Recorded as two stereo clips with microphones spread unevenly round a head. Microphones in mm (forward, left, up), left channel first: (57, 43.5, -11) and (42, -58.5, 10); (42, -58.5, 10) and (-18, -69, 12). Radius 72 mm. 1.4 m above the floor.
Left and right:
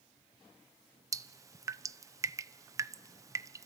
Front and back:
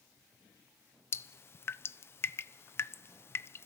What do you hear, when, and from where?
1.1 s dripping: 35° right, 0.8 m